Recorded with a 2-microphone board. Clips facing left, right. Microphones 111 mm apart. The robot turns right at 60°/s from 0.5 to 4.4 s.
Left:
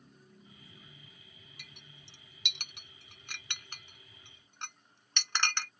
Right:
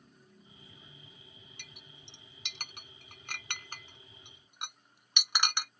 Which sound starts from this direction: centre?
A clink, at 1.6 s.